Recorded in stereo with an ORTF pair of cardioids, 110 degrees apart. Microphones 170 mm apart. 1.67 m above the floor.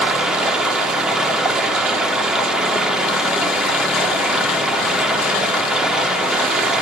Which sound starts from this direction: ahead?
Running water, at 0.0 s.